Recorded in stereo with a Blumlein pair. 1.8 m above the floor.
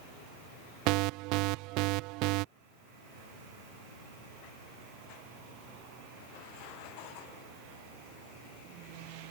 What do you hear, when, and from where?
0.9 s an alarm: 40° right